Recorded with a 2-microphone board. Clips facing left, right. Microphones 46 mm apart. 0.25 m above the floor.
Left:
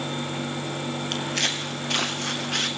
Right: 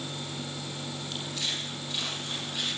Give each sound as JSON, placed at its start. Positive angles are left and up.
{"t": 1.1, "sound": "footsteps", "side_deg": 60, "distance_m": 3.0}